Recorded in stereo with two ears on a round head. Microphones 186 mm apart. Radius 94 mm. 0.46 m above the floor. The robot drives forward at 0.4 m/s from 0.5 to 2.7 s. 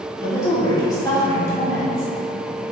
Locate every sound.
0.2 s a woman speaking: 15° left (ahead or behind), 0.7 m